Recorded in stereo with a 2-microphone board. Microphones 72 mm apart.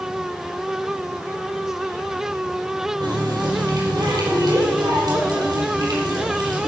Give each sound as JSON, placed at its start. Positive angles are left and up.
{"t": 3.0, "sound": "a running tap", "side_deg": -75, "distance_m": 5.5}